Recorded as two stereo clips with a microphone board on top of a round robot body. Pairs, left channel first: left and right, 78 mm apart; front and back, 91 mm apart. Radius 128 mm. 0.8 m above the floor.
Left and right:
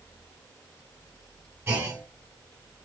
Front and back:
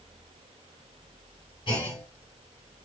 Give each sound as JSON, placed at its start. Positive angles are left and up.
{"t": 1.7, "sound": "a clunk", "azimuth_deg": -35, "distance_m": 1.6}